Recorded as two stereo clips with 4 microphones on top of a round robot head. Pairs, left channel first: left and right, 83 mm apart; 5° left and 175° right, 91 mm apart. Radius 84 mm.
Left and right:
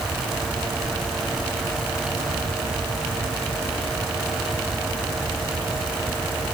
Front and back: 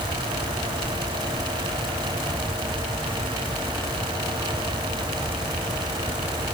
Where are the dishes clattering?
I don't hear dishes clattering.